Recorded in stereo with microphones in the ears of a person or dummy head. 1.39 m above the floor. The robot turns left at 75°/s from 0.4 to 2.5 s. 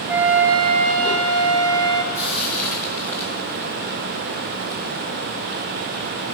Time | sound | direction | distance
0.1 | a flute | 10° right | 1.4 m
2.1 | frying | 10° right (ahead or behind) | 4.5 m